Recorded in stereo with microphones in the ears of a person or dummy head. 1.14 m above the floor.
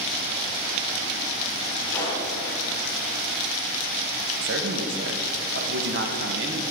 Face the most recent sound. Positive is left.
turn(degrees=-50)  # may be behind; listen again after turning